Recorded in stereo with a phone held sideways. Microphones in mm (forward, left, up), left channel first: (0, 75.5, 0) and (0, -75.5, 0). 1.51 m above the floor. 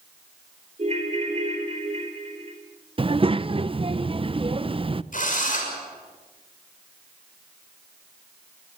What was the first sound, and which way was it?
A ringtone, 40° right (ahead or behind).